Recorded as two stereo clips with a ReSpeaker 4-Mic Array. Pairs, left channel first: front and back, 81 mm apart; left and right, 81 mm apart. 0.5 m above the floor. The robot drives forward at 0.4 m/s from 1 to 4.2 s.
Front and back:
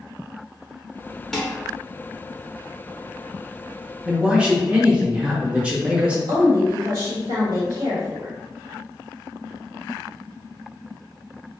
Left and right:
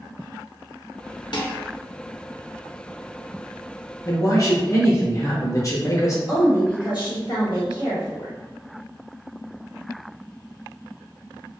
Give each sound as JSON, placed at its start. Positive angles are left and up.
{"t": 1.3, "sound": "dishes clattering", "azimuth_deg": 85, "distance_m": 0.7}
{"t": 4.0, "sound": "a man speaking", "azimuth_deg": 105, "distance_m": 0.9}
{"t": 6.3, "sound": "a woman speaking", "azimuth_deg": -165, "distance_m": 1.8}